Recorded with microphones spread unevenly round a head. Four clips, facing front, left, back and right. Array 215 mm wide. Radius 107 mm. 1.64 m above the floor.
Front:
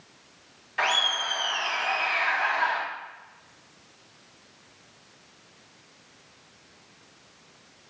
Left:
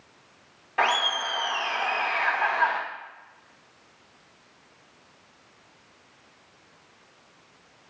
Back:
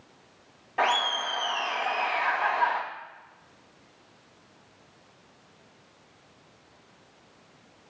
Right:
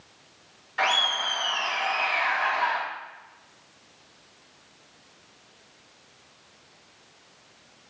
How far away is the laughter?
About 2 m.